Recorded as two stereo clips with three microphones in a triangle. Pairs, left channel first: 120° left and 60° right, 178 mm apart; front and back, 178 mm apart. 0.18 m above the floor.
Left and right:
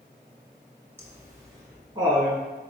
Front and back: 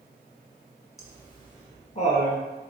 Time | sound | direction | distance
1.0 | laughter | 10° right | 1.4 m